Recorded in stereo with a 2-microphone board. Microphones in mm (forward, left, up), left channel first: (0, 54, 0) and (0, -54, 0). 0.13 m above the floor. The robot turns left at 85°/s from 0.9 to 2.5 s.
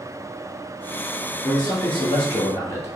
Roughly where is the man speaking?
Behind left.